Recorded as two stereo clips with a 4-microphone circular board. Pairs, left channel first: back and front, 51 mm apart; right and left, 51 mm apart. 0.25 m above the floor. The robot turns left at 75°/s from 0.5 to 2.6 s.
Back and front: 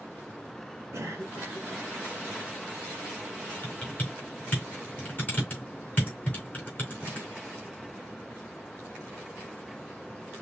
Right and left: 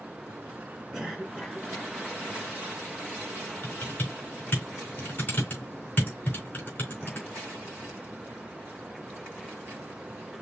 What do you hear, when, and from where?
0.9 s a cough: 5° left, 3.5 m; by 1.9 s 70° right, 3.5 m
3.6 s typing on a keyboard: 130° right, 3 m